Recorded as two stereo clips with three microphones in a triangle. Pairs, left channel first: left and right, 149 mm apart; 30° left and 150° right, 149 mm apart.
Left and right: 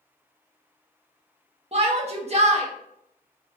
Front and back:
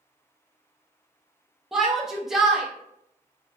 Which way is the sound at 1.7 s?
65° right.